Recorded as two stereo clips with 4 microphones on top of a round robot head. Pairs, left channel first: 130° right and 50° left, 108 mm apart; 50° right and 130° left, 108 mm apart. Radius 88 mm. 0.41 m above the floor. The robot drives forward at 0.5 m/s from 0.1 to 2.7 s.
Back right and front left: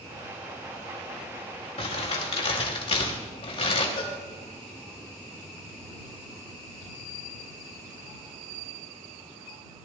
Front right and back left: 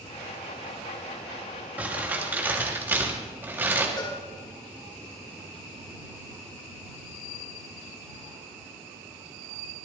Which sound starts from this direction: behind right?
Crumpling, at 1.8 s.